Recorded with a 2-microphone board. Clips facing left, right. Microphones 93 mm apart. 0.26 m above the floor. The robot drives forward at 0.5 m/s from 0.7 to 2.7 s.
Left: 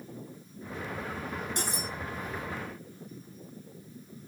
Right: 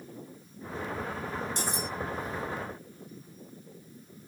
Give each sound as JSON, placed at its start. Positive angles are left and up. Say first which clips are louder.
{"t": 1.6, "sound": "cutlery clinking", "louder": "right 1 dB", "side_deg": 55, "distance_m": 7.0}